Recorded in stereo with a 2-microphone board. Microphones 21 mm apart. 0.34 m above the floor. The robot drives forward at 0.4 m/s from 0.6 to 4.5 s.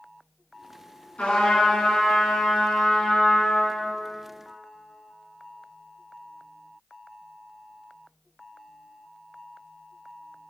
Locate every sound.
1.2 s a trumpet: 75° left (ahead or behind), 2.5 m; by 3.9 s 60° left (ahead or behind), 2.5 m